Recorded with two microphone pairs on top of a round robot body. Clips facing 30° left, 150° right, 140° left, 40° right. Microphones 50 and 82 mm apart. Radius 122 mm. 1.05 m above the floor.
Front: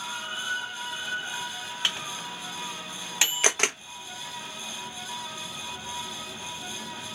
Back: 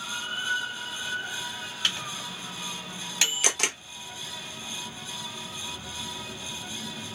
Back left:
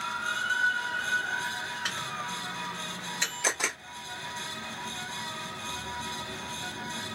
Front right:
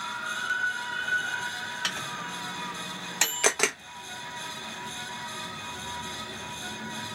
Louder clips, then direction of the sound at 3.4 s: Front 3 dB, front right 6 dB; 20° right.